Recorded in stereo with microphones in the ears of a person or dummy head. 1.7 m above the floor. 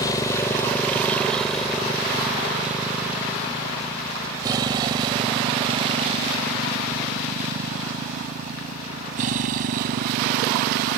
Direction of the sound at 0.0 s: 25° left (ahead or behind).